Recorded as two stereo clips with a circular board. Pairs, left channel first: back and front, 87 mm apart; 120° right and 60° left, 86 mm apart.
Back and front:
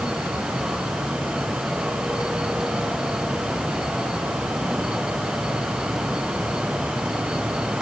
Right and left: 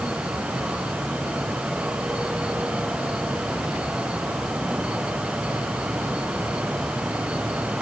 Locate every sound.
Only background noise.